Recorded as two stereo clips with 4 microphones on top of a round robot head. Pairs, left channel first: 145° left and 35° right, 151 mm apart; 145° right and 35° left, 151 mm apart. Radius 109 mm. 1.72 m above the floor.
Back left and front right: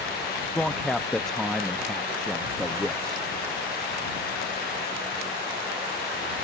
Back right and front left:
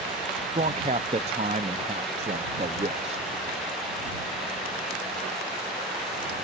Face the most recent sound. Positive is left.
turn(degrees=60)